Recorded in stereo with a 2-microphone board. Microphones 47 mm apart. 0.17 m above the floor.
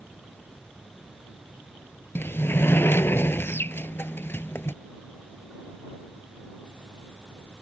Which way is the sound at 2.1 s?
60° left (ahead or behind).